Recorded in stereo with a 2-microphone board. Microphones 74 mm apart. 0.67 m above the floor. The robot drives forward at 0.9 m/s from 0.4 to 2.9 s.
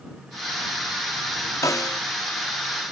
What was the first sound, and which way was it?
A snare drum, 45° left (ahead or behind).